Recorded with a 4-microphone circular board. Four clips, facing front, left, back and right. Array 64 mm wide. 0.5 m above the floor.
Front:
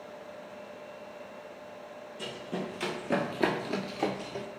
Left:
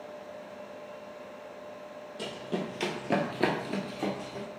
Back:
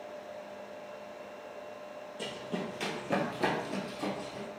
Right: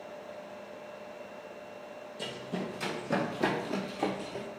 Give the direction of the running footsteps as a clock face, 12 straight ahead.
9 o'clock.